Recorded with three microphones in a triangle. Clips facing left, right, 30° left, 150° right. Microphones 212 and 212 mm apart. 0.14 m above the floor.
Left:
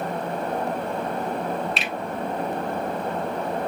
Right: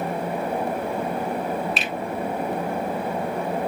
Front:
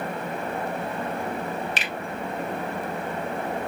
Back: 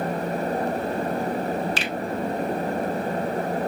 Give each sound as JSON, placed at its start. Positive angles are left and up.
{"t": 1.8, "sound": "a finger snap", "azimuth_deg": 0, "distance_m": 1.0}